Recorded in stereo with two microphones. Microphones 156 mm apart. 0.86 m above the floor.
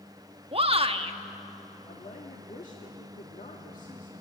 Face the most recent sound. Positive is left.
turn(degrees=50)  # may be behind; listen again after turning